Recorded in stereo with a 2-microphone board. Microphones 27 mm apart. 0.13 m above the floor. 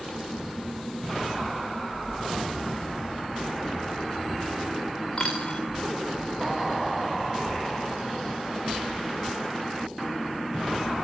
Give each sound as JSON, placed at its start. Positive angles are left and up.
{"t": 5.2, "sound": "a dropped coin", "side_deg": 25, "distance_m": 5.0}